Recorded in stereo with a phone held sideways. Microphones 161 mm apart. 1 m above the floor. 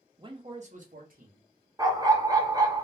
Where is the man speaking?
30° right (ahead or behind), 0.6 m; by 1.5 s 65° right (ahead or behind), 1.1 m.